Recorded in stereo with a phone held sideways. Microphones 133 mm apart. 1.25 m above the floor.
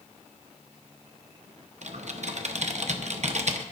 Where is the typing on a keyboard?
60° right (ahead or behind), 0.7 m.